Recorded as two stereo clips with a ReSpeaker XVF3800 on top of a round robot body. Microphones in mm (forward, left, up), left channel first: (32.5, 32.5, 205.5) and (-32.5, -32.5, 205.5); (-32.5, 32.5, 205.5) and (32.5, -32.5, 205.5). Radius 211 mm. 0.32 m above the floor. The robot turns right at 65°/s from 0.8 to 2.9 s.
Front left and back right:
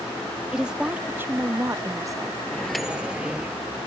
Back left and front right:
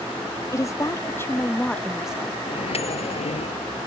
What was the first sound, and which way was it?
A woman speaking, 150° left.